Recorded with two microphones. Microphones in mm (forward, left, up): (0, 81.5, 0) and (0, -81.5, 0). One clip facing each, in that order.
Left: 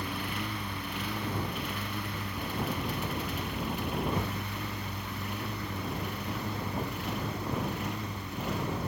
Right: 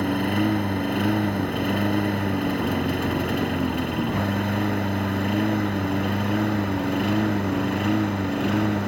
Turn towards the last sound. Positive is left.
turn(degrees=-70)  # may be behind; listen again after turning